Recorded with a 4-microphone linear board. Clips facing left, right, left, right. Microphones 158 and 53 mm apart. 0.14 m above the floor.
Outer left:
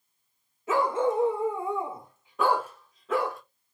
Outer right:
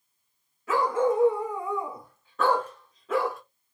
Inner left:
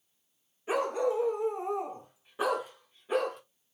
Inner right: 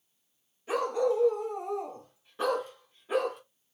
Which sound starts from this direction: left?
A dog barking, at 0.7 s.